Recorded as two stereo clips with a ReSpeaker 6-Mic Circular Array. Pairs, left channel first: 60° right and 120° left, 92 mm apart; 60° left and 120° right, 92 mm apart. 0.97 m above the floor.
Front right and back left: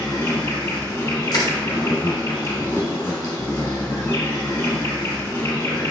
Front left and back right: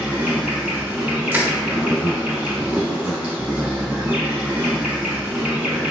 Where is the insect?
50° right, 1.0 m.